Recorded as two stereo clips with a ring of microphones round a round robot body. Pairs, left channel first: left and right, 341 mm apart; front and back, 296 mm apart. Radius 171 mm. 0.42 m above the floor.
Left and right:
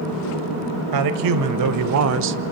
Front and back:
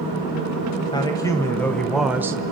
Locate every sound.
0.9 s a man speaking: 75° right, 2 m; by 2.4 s 110° right, 1.0 m